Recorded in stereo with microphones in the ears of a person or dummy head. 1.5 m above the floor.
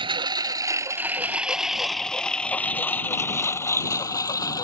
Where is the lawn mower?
25° right (ahead or behind); by 4.7 s 20° left (ahead or behind).